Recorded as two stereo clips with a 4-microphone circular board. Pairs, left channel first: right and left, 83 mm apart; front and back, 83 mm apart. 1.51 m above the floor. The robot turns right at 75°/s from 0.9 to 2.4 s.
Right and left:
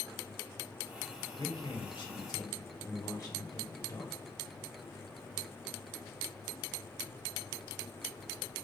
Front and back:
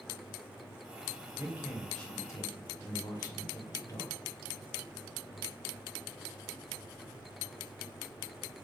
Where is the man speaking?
120° right, 1.2 m; by 4.2 s 45° right, 1.2 m.